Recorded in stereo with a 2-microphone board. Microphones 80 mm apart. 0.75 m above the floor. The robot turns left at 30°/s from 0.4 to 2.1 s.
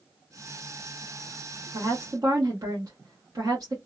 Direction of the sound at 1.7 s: 50° right (ahead or behind).